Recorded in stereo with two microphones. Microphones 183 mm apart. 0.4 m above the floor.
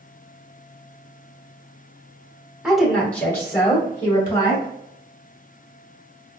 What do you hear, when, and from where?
2.6 s a woman speaking: 5° right (ahead or behind), 1.1 m; by 4.7 s 30° left (ahead or behind), 1.6 m